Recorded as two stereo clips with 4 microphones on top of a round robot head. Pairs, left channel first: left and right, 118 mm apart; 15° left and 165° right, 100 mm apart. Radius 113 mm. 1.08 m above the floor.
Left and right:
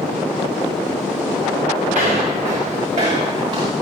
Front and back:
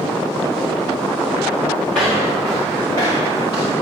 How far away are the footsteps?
About 7 m.